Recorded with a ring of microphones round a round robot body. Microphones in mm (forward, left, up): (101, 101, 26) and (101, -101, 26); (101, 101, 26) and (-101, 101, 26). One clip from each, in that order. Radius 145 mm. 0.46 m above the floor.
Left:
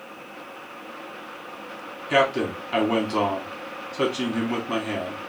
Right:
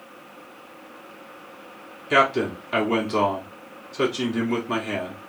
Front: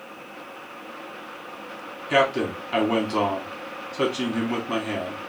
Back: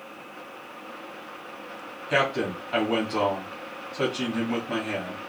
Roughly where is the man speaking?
Ahead.